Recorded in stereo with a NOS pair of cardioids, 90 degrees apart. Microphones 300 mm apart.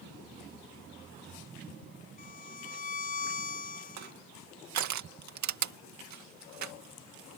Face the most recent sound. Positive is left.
turn(degrees=-70)